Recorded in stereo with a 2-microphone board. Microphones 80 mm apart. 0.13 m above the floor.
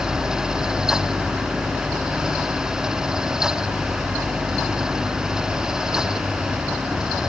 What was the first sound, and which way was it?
Only background noise.